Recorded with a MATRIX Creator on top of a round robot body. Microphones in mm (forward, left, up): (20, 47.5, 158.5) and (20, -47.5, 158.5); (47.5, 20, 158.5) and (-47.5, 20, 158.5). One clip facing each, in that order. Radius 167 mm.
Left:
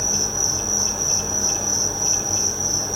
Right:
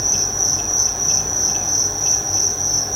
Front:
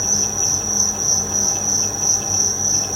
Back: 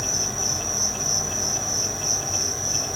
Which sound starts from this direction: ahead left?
An insect, at 0.0 s.